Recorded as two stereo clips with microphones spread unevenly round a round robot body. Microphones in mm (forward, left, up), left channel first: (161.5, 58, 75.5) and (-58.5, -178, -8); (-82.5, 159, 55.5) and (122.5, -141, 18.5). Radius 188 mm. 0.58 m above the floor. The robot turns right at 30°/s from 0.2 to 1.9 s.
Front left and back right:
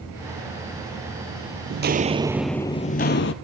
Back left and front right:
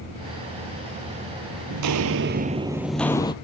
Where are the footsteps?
80° right, 0.7 m; by 3.3 s 55° left, 0.8 m.